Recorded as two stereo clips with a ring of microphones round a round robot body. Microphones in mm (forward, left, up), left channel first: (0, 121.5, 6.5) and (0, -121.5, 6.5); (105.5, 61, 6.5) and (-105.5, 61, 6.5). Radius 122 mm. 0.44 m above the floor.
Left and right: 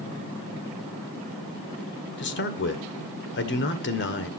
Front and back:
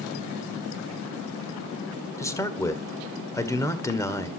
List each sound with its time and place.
2.2 s a man speaking: 70° left, 1.6 m